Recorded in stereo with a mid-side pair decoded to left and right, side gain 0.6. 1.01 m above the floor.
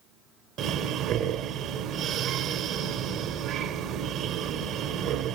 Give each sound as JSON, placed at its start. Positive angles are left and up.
{"t": 0.6, "sound": "breathing", "azimuth_deg": -60, "distance_m": 1.5}